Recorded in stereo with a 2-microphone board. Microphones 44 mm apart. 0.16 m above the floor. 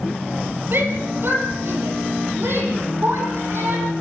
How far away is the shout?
About 4.5 m.